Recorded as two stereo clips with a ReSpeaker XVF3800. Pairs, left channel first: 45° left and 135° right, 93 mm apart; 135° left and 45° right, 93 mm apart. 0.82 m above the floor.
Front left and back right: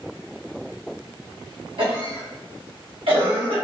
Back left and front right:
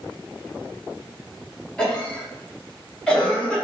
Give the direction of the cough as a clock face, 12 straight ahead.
5 o'clock.